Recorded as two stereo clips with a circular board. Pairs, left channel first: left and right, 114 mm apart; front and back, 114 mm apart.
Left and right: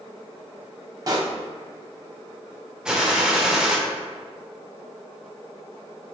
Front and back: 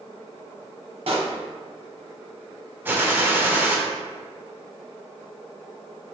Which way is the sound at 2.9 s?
160° right.